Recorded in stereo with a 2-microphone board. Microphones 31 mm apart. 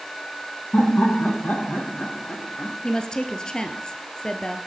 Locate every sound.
0.7 s laughter: 60° left (ahead or behind), 3 m
2.8 s a woman speaking: 25° left (ahead or behind), 2.0 m